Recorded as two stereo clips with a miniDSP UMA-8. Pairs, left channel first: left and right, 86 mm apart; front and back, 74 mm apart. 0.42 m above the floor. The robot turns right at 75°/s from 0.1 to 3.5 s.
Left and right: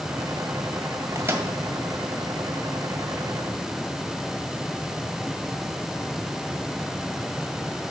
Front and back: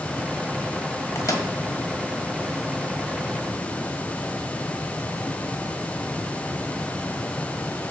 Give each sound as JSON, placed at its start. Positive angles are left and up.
{"t": 1.1, "sound": "a microwave", "azimuth_deg": -40, "distance_m": 1.5}